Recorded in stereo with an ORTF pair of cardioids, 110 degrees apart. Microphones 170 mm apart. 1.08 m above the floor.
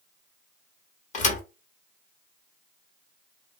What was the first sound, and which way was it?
A thud, 50° left.